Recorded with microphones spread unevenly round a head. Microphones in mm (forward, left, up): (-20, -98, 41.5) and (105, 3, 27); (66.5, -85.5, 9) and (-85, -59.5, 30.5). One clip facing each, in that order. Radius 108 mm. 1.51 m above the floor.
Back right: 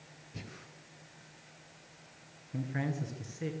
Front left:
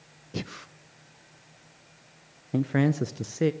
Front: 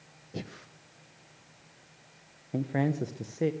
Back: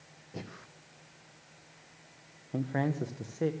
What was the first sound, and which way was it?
Breathing, 60° left.